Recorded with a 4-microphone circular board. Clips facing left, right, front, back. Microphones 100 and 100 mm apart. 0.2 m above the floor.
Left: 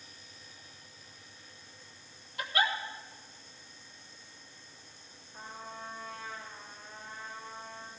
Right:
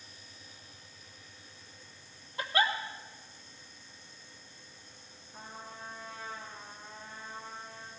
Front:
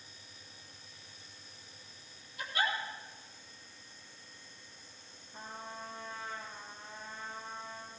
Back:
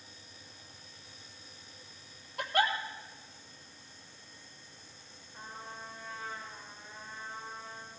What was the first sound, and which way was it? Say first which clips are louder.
A giggle: right 1 dB, back 5 dB; 150° right.